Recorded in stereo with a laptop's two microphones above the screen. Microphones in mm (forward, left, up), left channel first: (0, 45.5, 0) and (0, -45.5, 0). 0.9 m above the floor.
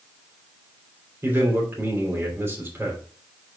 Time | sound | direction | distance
1.2 | a man speaking | 30° right (ahead or behind) | 3 m